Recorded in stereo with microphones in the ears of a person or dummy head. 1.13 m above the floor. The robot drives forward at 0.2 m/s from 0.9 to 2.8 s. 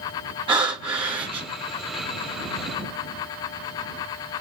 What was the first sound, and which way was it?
Breathing, 25° right (ahead or behind).